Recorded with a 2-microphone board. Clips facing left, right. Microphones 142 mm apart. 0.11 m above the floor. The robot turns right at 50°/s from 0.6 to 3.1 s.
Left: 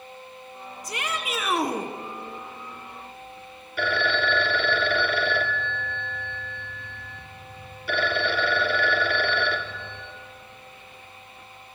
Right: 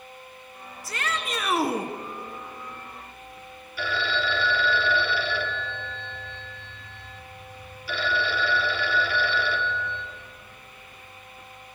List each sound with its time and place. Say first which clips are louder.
0.8 s a shout: even; 145° left, 1.4 m; by 1.9 s 160° right, 1.4 m
3.8 s a phone ringing: left 3 dB; 60° left (ahead or behind), 1.6 m